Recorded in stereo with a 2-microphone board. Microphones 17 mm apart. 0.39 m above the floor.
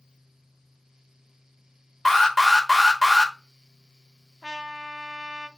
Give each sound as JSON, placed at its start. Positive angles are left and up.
{"t": 2.0, "sound": "an alarm", "side_deg": 15, "distance_m": 1.1}
{"t": 4.4, "sound": "a trumpet", "side_deg": -55, "distance_m": 0.5}